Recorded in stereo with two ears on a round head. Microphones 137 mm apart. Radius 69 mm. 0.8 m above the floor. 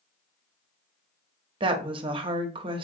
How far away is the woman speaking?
About 0.6 m.